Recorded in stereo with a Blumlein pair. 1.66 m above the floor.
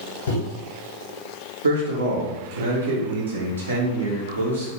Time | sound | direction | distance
0.3 | a microwave | 60° left | 1.0 m
1.6 | a man speaking | 70° right | 1.0 m